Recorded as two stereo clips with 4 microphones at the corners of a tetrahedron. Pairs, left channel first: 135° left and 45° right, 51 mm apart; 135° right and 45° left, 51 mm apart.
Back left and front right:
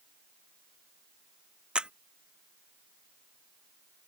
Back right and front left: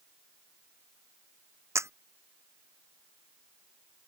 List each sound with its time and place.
1.8 s a camera shutter: 25° left